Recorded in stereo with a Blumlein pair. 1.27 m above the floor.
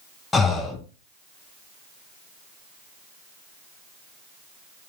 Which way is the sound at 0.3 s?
15° left.